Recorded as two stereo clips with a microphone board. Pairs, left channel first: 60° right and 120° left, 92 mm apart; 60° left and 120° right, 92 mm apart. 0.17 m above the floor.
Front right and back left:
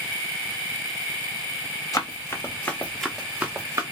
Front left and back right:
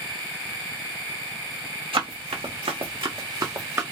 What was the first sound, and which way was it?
Running footsteps, 110° right.